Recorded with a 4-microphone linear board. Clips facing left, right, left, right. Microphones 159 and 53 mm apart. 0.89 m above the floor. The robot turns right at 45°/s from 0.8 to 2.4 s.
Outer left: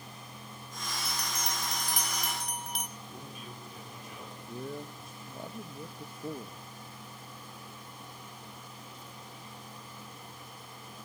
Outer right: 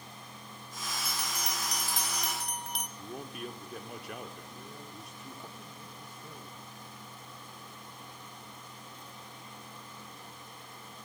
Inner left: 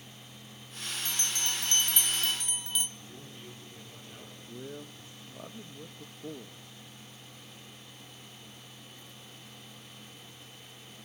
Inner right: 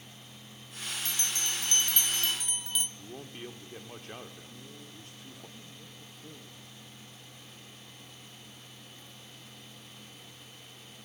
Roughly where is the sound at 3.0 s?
Right.